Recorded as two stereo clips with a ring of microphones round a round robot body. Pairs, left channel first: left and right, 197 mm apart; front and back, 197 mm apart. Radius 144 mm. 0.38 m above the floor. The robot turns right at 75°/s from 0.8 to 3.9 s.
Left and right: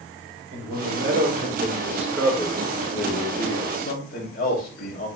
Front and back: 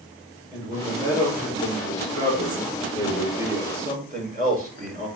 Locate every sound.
0.5 s a man speaking: 95° right, 6 m; by 5.1 s 135° left, 6 m